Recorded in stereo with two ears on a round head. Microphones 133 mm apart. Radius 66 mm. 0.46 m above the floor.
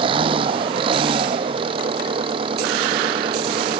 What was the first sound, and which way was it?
An engine running, 35° right (ahead or behind).